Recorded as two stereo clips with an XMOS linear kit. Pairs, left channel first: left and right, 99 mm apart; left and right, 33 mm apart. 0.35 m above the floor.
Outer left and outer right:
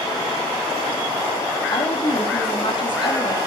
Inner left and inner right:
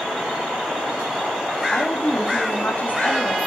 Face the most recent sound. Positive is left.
turn(degrees=50)  # may be behind; listen again after turning